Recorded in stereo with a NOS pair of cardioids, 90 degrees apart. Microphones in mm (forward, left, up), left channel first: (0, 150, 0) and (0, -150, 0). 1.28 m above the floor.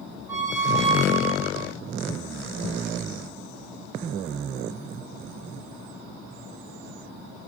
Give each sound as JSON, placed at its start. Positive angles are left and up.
{"t": 0.3, "sound": "a squeak", "azimuth_deg": -10, "distance_m": 1.4}